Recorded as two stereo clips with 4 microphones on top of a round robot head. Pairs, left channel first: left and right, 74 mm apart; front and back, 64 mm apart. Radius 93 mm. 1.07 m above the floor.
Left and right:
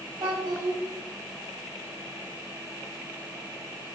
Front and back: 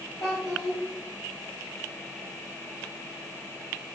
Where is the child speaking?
55° right, 1.4 m.